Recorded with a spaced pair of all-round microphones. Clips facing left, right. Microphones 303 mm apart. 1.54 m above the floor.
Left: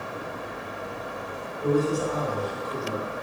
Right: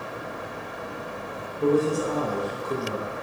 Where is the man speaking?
55° right (ahead or behind), 0.8 m.